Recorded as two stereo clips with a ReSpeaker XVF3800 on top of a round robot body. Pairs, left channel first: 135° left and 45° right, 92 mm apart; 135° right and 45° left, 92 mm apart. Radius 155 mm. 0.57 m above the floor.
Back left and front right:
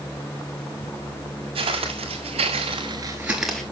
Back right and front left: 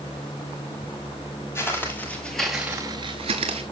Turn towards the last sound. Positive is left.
turn(degrees=50)